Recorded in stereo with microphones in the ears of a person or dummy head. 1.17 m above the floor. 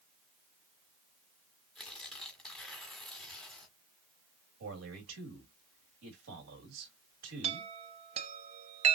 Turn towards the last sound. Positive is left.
turn(degrees=-35)  # may be behind; listen again after turning